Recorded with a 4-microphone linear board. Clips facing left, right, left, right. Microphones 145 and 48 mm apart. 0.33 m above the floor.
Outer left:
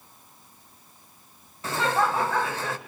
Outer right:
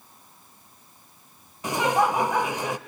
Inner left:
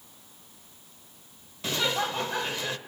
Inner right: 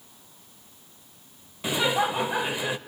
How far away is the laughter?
About 0.8 m.